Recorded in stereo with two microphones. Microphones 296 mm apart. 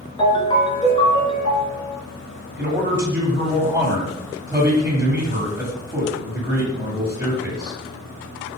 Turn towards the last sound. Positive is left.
turn(degrees=-10)  # may be behind; listen again after turning